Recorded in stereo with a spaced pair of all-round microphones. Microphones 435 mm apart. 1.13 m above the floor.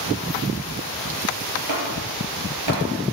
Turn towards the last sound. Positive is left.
turn(degrees=-80)